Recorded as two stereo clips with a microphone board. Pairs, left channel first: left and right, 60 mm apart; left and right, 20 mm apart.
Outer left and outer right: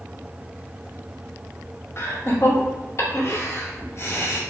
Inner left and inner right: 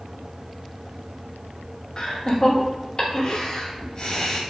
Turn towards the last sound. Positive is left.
turn(degrees=45)  # may be behind; listen again after turning